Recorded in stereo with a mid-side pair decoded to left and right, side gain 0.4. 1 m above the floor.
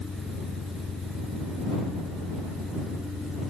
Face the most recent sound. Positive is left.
turn(degrees=35)